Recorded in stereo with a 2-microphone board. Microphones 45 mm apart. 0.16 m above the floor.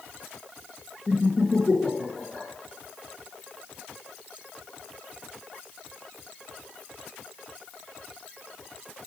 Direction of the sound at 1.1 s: 5° right (ahead or behind).